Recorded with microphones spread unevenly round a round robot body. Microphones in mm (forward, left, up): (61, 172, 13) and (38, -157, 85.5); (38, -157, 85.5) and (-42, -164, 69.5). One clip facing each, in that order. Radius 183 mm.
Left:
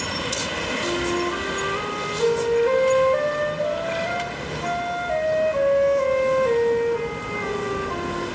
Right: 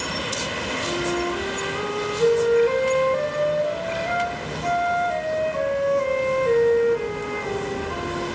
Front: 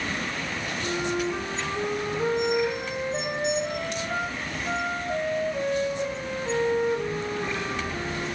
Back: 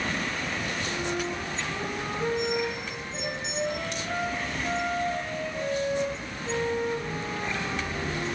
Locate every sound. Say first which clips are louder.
0.8 s a flute: left 1 dB, front 6 dB; 70° left, 2.5 m